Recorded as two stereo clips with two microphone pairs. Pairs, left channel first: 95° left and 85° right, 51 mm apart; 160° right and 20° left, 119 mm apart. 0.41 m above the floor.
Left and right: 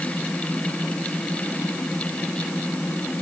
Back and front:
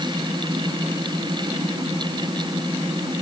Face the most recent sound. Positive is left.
No sound to turn to.